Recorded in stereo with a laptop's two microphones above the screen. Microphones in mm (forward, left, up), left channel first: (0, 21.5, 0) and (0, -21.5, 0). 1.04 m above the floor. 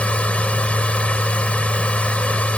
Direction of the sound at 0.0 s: 30° left (ahead or behind).